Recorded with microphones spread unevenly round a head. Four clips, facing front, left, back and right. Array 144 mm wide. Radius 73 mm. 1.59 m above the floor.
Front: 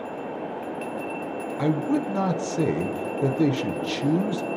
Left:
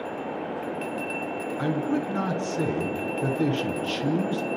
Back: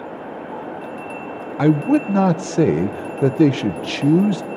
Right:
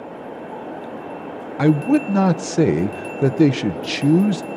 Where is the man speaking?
140° right, 1.0 m.